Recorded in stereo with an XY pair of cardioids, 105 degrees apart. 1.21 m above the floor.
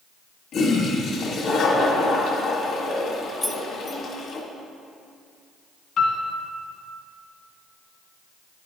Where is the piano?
65° left, 1.6 m.